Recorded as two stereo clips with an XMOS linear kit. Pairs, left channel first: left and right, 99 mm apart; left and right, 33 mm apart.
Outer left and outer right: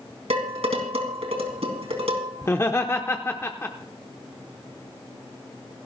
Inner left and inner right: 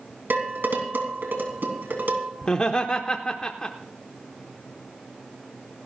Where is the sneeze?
No sneeze in this recording.